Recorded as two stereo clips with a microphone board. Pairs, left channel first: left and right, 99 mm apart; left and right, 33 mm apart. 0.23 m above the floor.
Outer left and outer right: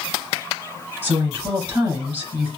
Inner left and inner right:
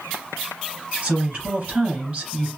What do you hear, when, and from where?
1.0 s a woman speaking: 25° right (ahead or behind), 2.5 m